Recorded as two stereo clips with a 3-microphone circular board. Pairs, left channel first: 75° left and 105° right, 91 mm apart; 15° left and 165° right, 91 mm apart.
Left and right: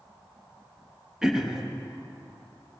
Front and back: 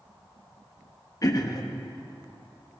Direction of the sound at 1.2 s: 20° right.